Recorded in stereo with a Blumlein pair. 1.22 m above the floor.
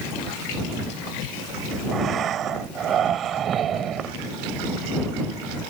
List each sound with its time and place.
1.9 s breathing: 25° right